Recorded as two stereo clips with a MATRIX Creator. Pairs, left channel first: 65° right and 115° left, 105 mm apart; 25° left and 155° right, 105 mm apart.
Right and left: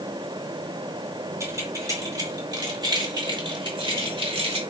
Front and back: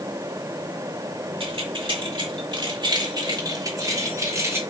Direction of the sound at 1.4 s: 175° left.